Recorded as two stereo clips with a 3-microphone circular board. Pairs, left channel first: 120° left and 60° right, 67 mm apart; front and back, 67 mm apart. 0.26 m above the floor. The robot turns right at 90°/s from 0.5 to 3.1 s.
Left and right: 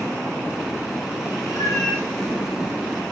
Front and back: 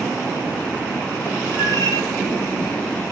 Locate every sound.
1.5 s a cat meowing: 55° right, 8.5 m; by 2.1 s 5° right, 8.5 m